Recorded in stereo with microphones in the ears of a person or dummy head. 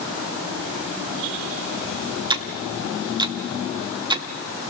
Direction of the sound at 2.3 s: 25° right (ahead or behind).